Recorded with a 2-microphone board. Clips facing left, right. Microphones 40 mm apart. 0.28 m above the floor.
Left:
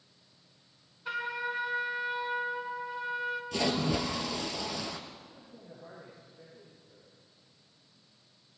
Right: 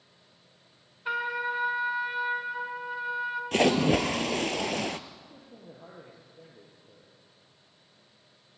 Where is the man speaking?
80° right, 7 m.